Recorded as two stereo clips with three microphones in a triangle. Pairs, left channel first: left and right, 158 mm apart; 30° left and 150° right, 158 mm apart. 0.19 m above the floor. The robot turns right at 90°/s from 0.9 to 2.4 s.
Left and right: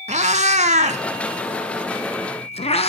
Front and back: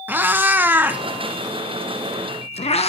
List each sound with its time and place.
0.1 s a cat meowing: 75° right, 1.1 m; by 2.9 s 60° left, 1.1 m